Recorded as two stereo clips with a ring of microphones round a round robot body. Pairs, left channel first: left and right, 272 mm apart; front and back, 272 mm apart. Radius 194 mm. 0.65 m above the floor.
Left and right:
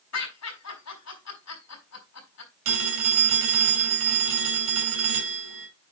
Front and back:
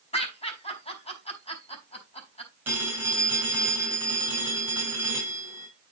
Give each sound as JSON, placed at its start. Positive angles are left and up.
{"t": 0.1, "sound": "laughter", "azimuth_deg": 70, "distance_m": 5.0}
{"t": 2.6, "sound": "a phone ringing", "azimuth_deg": -95, "distance_m": 3.0}